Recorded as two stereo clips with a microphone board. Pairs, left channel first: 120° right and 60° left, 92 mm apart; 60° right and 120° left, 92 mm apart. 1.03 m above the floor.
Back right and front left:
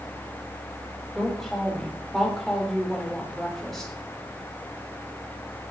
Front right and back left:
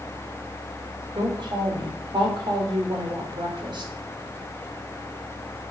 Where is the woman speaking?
155° left, 3 m.